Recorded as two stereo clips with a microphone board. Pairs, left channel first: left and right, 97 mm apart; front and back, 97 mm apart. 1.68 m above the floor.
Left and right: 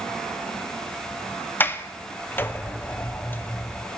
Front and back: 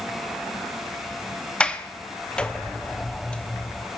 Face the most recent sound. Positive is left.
turn(degrees=65)